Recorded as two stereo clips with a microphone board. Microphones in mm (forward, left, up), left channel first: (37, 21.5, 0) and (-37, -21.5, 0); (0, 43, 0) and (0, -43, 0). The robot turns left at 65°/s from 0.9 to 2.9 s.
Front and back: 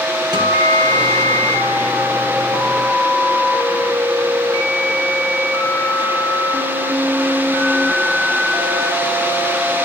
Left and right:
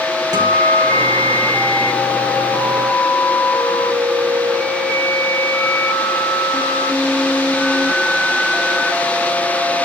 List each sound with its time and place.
0.3 s a guitar: 125° right, 3.5 m; by 2.5 s 130° left, 3.5 m